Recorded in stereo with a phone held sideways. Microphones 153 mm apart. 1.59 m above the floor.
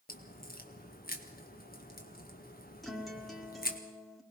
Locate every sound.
0.1 s a crack: 70° left (ahead or behind), 1.9 m
2.8 s a guitar: centre (ahead or behind), 2 m